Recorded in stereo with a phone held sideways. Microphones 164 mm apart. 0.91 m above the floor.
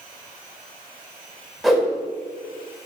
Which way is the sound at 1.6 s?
Centre (ahead or behind).